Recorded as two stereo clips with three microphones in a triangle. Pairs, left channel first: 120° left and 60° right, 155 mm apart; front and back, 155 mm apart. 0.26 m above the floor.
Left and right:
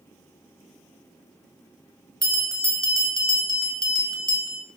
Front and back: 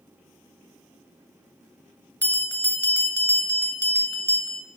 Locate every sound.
2.2 s a bell: 55° right, 1.6 m